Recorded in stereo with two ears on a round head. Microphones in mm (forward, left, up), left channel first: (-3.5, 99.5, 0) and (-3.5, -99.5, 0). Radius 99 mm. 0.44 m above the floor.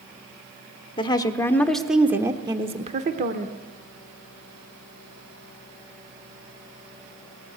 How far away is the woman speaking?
About 1.1 m.